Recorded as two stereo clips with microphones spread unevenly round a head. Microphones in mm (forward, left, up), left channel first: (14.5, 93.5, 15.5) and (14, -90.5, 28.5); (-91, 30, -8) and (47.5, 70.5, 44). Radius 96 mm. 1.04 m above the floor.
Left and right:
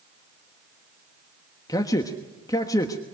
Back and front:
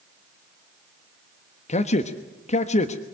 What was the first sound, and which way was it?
A man speaking, 160° left.